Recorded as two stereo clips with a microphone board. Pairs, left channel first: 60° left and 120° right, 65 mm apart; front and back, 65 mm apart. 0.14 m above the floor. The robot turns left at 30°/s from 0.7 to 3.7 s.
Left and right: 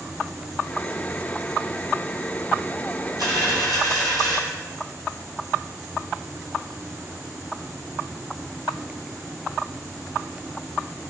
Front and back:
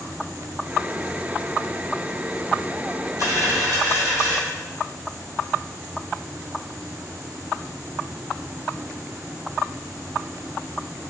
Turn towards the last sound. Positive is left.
turn(degrees=-170)